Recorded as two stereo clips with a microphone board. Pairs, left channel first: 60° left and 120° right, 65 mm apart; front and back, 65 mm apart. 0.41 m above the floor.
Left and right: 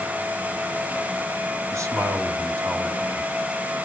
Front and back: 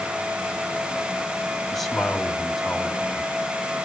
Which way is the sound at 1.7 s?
90° right.